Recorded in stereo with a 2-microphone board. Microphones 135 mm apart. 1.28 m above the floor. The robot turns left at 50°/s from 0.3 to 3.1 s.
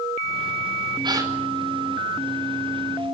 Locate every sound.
1.0 s a gasp: 35° right (ahead or behind), 4 m; by 1.3 s 20° right (ahead or behind), 4 m